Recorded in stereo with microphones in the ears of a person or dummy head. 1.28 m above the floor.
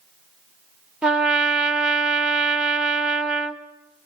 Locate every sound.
1.0 s a trumpet: 5° right (ahead or behind), 0.8 m